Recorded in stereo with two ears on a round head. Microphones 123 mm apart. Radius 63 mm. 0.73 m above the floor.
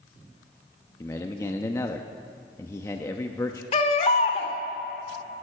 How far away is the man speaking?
About 0.6 m.